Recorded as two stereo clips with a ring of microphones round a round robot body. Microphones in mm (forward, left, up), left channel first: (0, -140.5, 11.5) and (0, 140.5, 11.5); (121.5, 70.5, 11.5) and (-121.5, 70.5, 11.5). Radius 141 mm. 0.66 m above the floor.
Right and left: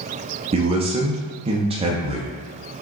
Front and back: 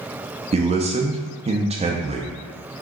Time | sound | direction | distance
0.5 | a man speaking | 140° left | 0.5 m